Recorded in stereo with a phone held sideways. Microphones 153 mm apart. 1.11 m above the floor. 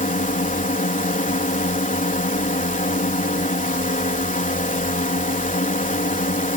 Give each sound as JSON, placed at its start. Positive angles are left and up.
{"t": 0.0, "sound": "a drone", "side_deg": 60}